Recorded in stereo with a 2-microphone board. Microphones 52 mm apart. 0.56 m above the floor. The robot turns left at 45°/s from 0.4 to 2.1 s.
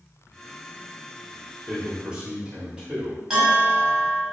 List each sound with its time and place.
1.7 s a man speaking: 5° right (ahead or behind), 1.8 m; by 3.2 s 15° right (ahead or behind), 1.8 m
3.3 s a bell: 10° right (ahead or behind), 1.7 m